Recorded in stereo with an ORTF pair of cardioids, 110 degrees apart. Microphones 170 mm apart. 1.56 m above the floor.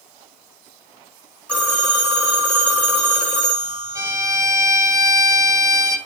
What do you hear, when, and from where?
1.5 s a phone ringing: 10° left, 4 m
4.0 s a violin: 20° right, 2.5 m